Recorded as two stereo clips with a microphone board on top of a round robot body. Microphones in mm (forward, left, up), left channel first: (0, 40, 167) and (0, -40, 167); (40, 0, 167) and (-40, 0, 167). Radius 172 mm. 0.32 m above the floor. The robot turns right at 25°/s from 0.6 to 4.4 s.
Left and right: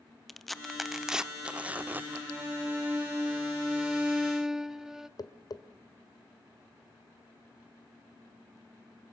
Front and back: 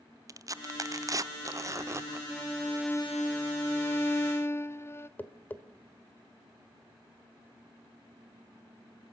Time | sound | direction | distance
0.3 | tearing paper | straight behind | 0.9 m
2.3 | a violin | 65° right | 1.1 m
5.2 | tapping | 65° left | 1.6 m